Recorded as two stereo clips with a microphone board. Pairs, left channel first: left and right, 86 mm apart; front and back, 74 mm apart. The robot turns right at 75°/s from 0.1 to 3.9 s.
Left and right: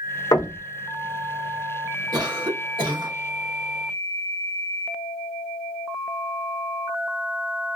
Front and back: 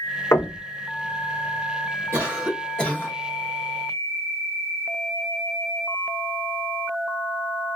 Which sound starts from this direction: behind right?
A cough, at 2.1 s.